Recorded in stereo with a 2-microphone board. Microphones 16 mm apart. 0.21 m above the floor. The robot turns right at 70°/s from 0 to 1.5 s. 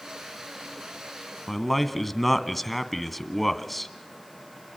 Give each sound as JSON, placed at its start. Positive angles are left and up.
{"t": 1.5, "sound": "a man speaking", "side_deg": 5, "distance_m": 1.6}